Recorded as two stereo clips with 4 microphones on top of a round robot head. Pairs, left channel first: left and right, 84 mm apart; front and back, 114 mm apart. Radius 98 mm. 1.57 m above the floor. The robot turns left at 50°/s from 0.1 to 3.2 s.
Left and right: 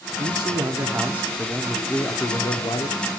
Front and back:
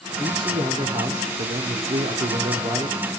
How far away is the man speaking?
About 0.7 m.